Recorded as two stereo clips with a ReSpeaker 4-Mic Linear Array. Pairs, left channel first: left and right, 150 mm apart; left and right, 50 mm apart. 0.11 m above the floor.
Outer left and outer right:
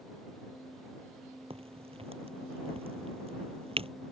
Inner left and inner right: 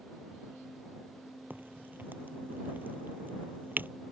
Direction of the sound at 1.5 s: 40° right (ahead or behind).